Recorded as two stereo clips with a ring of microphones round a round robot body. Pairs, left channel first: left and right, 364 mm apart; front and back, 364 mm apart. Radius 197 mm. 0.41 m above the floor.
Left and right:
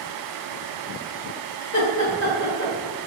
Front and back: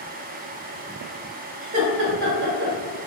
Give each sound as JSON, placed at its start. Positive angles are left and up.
{"t": 1.6, "sound": "laughter", "azimuth_deg": 125, "distance_m": 1.1}